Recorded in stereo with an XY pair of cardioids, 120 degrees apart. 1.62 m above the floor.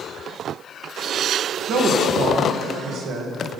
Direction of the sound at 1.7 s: 65° right.